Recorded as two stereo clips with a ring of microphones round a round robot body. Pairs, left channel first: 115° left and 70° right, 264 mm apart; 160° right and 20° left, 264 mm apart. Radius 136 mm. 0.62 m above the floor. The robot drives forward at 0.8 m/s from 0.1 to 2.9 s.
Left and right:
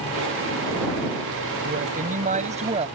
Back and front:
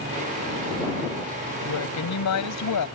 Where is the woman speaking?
125° right; by 2.9 s 135° right.